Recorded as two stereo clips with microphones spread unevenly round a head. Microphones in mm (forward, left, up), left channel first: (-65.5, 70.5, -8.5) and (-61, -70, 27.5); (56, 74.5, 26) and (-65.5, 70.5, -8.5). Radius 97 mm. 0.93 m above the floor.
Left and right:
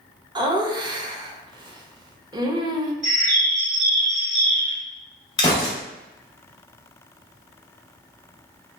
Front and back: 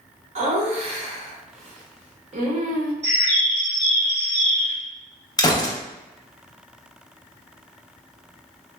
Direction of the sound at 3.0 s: 95° right.